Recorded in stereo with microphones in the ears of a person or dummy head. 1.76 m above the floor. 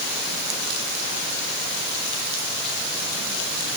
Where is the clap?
No clap in this recording.